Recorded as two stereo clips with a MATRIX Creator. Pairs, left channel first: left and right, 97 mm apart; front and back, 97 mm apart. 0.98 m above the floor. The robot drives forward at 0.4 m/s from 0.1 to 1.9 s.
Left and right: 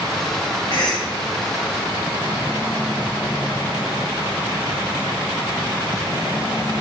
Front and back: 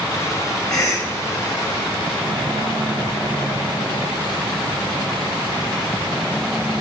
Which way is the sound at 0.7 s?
50° left.